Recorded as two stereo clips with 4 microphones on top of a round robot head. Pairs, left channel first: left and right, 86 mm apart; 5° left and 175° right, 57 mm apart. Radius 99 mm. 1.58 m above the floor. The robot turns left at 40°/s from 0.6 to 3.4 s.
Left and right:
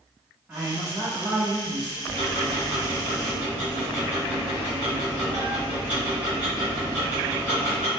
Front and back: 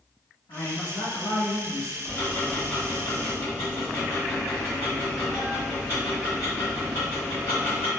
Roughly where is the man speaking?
Ahead.